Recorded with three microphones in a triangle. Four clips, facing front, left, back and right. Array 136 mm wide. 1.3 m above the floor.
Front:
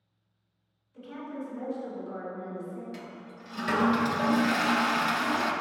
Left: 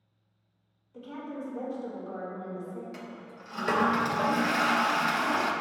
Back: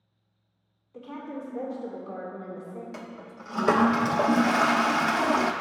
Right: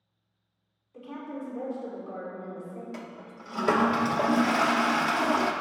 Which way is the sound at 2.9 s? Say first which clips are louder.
Right 1 dB, back 2 dB; 150° right.